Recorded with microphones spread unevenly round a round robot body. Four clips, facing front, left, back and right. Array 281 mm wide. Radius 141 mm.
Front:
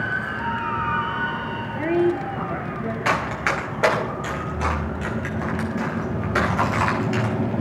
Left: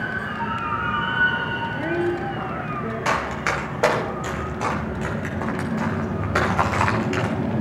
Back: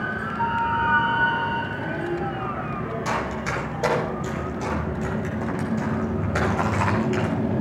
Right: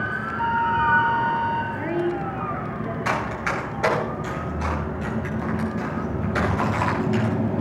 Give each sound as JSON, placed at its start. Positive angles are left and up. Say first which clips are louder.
{"t": 0.4, "sound": "a flute", "louder": "right 7 dB, back 6 dB", "azimuth_deg": -165, "distance_m": 2.0}
{"t": 1.7, "sound": "a woman speaking", "louder": "left 1 dB, front 7 dB", "azimuth_deg": 45, "distance_m": 6.0}
{"t": 3.0, "sound": "running footsteps", "louder": "left 2 dB, front 5 dB", "azimuth_deg": 50, "distance_m": 8.5}